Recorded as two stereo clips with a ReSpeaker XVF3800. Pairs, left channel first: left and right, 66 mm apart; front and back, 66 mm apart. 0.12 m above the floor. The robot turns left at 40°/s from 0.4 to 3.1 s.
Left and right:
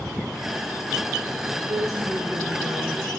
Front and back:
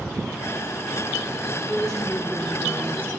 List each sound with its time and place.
1.7 s a woman speaking: 80° right, 4 m; by 3.1 s 140° right, 4 m